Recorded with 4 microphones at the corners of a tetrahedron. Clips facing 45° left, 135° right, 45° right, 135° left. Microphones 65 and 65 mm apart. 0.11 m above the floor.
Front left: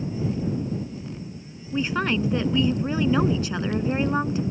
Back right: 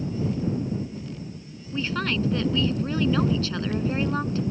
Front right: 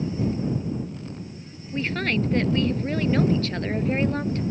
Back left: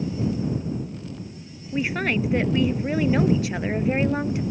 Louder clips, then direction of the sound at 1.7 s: Front left 3 dB, back left 1 dB; 80° left.